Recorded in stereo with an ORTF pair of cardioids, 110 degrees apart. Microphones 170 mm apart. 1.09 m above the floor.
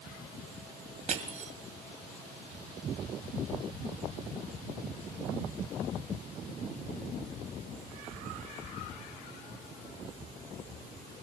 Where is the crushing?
50° right, 2 m.